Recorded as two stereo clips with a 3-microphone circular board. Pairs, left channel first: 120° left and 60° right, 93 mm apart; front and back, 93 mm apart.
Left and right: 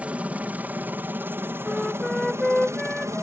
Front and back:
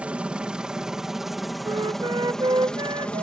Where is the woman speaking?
No woman speaking in this recording.